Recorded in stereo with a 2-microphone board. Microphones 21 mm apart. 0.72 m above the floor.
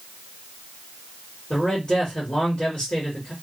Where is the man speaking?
35° left (ahead or behind), 1.6 m.